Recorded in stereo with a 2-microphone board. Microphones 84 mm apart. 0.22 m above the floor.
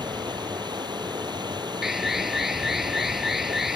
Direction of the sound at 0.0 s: 55° right (ahead or behind).